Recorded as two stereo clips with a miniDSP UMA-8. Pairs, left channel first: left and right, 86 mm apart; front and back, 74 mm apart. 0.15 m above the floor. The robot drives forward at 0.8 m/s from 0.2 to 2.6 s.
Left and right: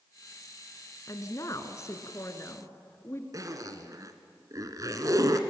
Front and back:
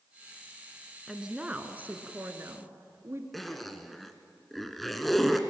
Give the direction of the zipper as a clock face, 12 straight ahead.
3 o'clock.